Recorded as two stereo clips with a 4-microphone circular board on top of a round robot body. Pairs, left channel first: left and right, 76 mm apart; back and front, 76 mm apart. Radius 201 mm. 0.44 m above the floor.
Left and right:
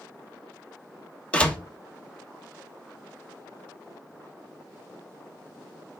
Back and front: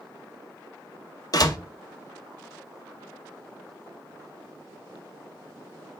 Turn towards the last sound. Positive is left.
turn(degrees=160)